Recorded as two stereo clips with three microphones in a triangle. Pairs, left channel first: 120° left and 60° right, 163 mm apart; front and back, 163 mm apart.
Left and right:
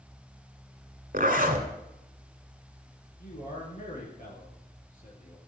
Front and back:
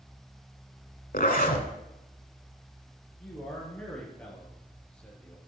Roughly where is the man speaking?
Left.